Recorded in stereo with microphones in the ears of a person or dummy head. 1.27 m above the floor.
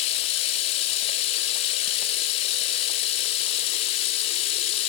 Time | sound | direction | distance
0.0 | running water | 35° left (ahead or behind) | 0.7 m